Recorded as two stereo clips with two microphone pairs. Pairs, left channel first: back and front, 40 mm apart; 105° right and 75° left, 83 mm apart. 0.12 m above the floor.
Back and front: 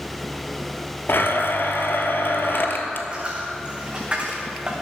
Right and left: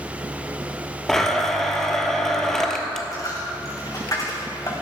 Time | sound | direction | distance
1.1 | a blender | 170° left | 1.0 m
3.1 | a dropped coin | 60° right | 2.5 m